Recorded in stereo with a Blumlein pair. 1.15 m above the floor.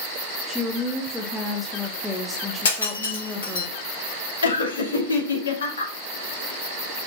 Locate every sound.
0.5 s a woman speaking: 5° left, 0.6 m
2.6 s breaking glass: 60° left, 1.5 m
4.4 s laughter: 65° left, 1.4 m